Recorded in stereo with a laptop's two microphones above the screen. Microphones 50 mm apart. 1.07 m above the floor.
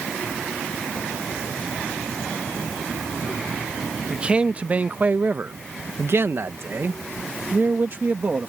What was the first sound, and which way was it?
A man speaking, 20° right (ahead or behind).